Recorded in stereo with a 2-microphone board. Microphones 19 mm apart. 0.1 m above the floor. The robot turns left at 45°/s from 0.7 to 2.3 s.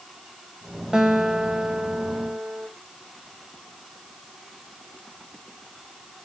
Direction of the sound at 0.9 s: 55° right.